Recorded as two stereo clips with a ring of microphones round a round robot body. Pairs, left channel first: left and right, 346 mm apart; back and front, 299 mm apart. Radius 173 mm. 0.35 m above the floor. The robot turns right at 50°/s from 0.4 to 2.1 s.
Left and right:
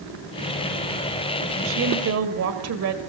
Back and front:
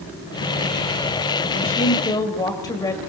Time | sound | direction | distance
1.6 | a woman speaking | 130° right | 1.9 m